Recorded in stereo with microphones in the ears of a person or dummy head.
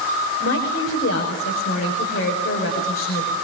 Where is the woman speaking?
55° left (ahead or behind), 5 m.